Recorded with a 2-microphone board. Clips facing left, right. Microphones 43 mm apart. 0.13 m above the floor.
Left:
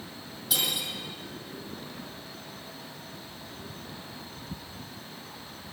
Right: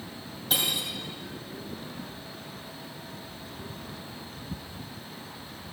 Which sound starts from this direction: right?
Cutlery clinking, at 0.5 s.